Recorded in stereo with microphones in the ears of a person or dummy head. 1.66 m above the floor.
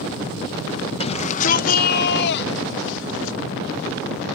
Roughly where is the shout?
Left.